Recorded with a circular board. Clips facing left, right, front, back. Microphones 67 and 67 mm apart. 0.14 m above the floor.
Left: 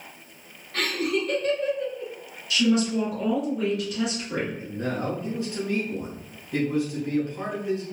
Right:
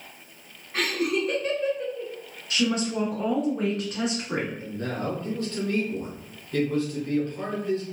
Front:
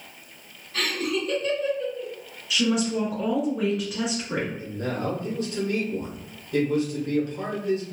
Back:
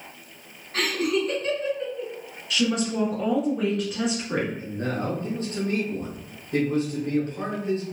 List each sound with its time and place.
0.7 s laughter: 155° right, 1.4 m
2.5 s a woman speaking: 85° right, 1.3 m
4.6 s a man speaking: 150° left, 1.3 m